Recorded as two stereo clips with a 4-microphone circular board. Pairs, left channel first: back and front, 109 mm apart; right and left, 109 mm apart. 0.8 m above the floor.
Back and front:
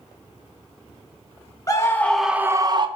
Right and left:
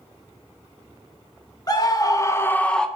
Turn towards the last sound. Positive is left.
turn(degrees=-10)